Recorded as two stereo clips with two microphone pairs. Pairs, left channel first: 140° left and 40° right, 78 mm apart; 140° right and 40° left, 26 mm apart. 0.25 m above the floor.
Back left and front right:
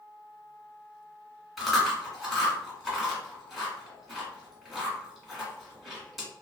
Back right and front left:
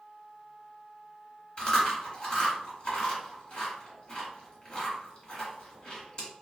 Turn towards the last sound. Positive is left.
turn(degrees=-130)